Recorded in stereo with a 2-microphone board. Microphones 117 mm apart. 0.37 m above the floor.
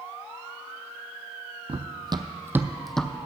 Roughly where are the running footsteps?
Right.